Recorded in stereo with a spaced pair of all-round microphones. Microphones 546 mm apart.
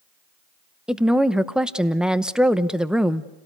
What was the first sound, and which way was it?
A woman speaking, centre (ahead or behind).